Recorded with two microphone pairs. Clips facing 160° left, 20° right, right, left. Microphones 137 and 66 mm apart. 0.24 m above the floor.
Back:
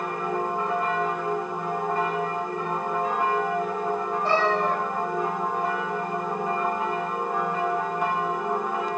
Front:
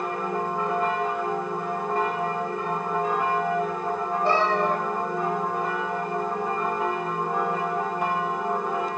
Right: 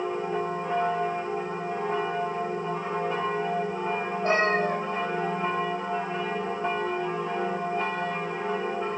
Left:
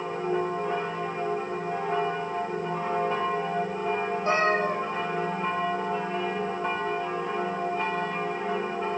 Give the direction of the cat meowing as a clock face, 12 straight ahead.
2 o'clock.